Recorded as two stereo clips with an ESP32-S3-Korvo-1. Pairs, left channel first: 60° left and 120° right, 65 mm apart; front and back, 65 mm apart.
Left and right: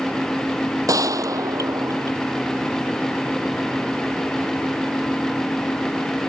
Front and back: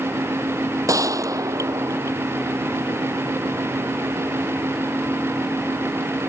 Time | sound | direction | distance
0.9 | a gunshot | 150° right | ?